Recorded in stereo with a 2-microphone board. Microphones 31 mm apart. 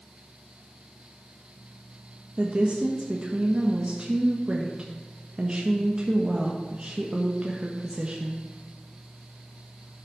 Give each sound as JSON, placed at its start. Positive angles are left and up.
{"t": 2.4, "sound": "a woman speaking", "side_deg": -35, "distance_m": 1.3}